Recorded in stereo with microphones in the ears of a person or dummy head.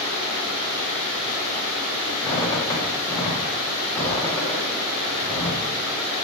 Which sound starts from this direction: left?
A squeak, at 2.2 s.